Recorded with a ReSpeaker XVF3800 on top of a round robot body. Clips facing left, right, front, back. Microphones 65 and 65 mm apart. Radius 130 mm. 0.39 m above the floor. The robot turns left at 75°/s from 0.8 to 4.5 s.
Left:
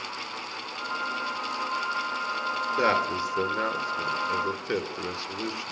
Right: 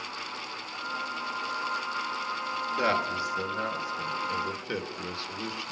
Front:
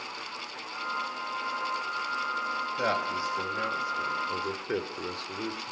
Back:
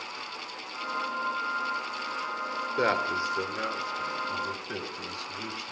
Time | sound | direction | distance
2.8 | a man speaking | 160° left | 2 m